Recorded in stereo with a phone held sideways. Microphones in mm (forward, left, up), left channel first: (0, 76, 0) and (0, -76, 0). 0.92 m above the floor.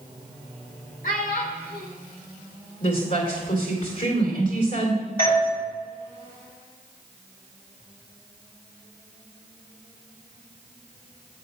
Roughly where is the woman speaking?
Left.